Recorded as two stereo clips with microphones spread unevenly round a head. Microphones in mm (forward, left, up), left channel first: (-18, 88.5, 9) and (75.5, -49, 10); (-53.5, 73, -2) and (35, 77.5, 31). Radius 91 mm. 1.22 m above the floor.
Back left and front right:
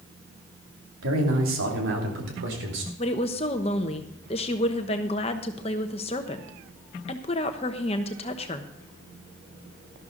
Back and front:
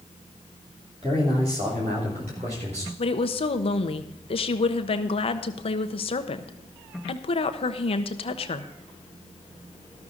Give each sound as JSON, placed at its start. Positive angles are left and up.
{"t": 1.0, "sound": "a man speaking", "azimuth_deg": -60, "distance_m": 3.0}
{"t": 3.0, "sound": "a woman speaking", "azimuth_deg": -175, "distance_m": 1.1}